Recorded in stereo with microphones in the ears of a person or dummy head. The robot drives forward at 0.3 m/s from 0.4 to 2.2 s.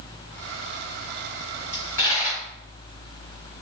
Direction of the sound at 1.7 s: 20° left (ahead or behind).